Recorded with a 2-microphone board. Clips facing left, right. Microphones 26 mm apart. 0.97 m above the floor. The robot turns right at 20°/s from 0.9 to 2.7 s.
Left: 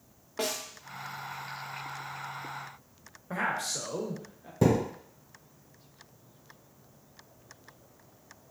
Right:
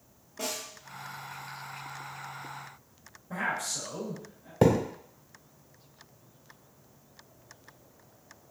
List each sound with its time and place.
0.4 s a snare drum: 60° left (ahead or behind), 0.8 m
3.3 s a man speaking: 40° left (ahead or behind), 1.0 m
4.6 s a thud: 40° right (ahead or behind), 1.6 m